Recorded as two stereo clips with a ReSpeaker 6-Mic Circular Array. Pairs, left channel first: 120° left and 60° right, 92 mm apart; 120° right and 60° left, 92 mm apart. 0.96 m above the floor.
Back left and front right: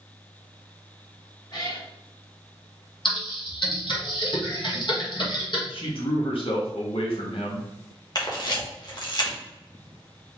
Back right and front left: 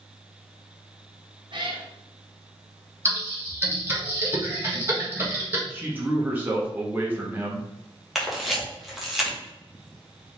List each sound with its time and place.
1.5 s a cat meowing: 85° left, 1.4 m
3.0 s typing on a keyboard: 120° left, 1.4 m
5.7 s a man speaking: 130° left, 1.2 m
8.2 s a camera shutter: 145° left, 1.2 m